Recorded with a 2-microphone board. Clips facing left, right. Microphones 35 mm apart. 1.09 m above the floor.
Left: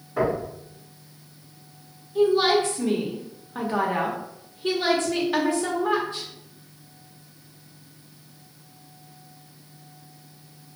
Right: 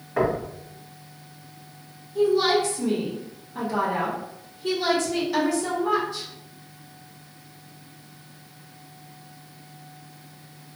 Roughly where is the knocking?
Right.